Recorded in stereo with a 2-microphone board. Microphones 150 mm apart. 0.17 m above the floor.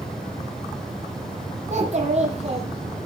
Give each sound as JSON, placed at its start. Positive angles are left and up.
{"t": 1.7, "sound": "a child speaking", "side_deg": -50, "distance_m": 4.5}